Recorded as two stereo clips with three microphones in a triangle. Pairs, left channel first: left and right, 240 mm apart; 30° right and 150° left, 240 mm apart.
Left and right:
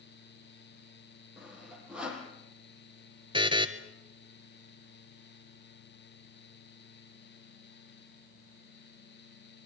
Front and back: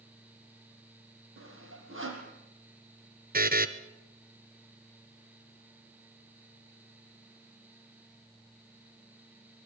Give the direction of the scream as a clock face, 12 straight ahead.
No scream in this recording.